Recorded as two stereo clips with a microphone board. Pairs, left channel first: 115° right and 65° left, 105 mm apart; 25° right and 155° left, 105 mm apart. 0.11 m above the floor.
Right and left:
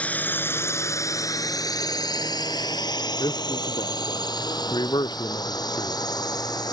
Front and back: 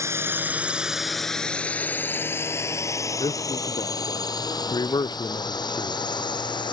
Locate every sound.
0.0 s a drone: 175° right; by 6.7 s 65° right
3.2 s a man speaking: 70° right